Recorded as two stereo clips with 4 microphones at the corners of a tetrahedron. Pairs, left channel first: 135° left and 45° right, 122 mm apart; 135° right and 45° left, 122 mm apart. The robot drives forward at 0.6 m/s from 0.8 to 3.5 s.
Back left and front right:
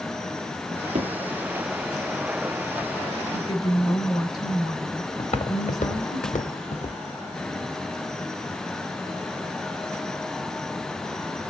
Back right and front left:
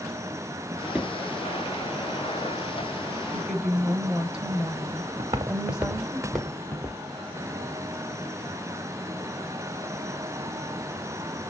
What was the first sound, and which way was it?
A drawer, 35° right.